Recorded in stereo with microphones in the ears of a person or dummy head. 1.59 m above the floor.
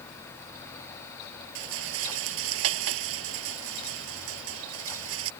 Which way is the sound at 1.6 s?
80° right.